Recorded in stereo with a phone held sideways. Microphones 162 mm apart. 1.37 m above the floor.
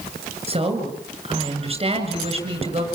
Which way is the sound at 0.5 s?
35° right (ahead or behind).